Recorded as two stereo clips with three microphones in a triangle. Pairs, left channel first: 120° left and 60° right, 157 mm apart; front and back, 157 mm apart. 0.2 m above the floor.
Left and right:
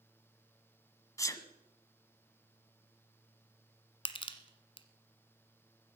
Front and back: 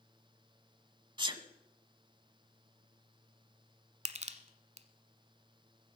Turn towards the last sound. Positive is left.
turn(degrees=160)